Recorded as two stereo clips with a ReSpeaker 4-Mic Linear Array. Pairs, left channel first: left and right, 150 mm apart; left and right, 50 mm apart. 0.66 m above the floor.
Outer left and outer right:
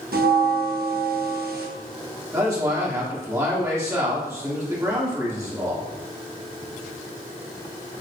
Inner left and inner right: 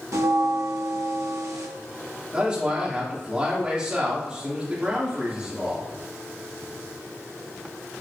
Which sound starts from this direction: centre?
A man speaking, at 2.3 s.